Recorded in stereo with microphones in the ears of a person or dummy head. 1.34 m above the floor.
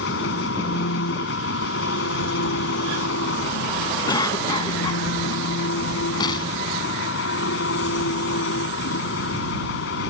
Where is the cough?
25° left (ahead or behind).